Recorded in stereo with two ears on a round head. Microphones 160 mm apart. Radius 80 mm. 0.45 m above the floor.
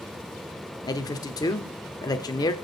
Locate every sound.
0.8 s a man speaking: 20° left (ahead or behind), 1.0 m